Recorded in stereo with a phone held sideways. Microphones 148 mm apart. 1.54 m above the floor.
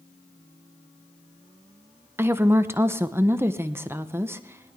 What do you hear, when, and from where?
2.2 s a woman speaking: 15° right (ahead or behind), 0.7 m